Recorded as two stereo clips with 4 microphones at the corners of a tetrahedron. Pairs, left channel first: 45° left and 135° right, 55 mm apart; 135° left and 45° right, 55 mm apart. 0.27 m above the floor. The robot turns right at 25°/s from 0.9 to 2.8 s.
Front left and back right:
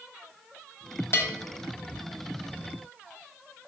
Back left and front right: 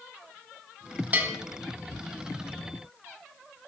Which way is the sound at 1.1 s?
15° left.